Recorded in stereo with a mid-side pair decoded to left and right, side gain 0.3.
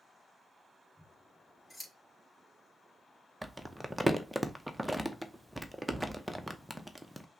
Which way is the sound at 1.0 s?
15° left.